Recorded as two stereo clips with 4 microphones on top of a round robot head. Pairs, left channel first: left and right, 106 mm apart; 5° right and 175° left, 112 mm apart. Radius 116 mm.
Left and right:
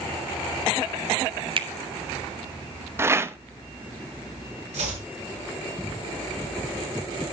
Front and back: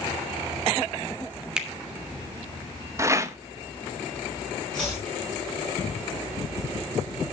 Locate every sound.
1.6 s a finger snap: 105° right, 1.2 m
3.0 s a rattle: 140° right, 0.9 m
4.7 s chopping: 90° right, 5.5 m